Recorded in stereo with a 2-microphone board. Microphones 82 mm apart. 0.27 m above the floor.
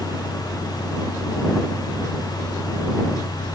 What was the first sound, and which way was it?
Only background noise.